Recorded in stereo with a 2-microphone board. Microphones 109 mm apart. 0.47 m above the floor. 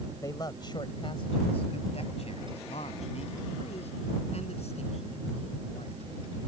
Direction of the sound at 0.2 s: 30° left (ahead or behind).